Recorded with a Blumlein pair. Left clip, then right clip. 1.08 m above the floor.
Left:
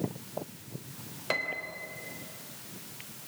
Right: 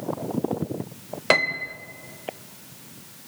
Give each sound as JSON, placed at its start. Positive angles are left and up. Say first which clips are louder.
{"t": 1.3, "sound": "a piano", "louder": "right 11 dB", "azimuth_deg": -30, "distance_m": 1.0}